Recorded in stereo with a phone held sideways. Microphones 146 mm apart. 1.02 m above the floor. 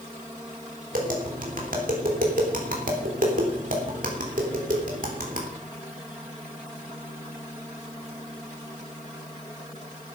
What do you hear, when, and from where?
0.9 s tapping: 75° right (ahead or behind), 3 m